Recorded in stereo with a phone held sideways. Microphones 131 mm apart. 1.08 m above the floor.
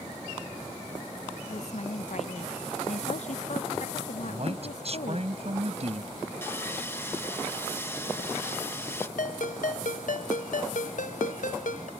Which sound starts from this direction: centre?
Sawing, at 6.4 s.